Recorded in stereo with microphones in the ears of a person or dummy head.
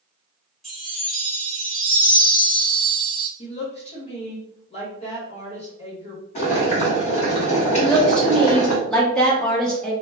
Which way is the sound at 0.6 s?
Centre (ahead or behind).